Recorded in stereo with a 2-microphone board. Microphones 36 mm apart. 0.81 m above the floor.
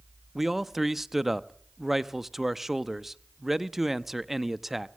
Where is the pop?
I don't hear a pop.